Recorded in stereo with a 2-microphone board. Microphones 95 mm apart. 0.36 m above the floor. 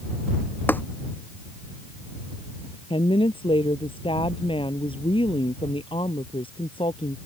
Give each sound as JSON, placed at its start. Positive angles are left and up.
{"t": 0.7, "sound": "tapping", "side_deg": 20}
{"t": 2.9, "sound": "a woman speaking", "side_deg": 65}